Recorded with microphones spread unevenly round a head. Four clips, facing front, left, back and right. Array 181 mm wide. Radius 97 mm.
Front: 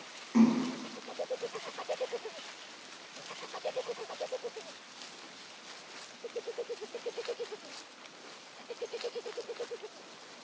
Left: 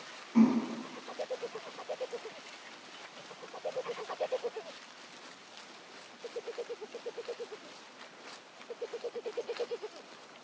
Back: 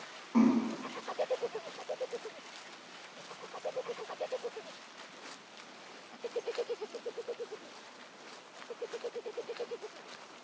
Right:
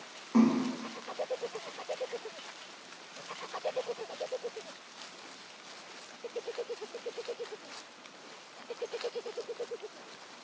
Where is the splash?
80° right, 0.7 m.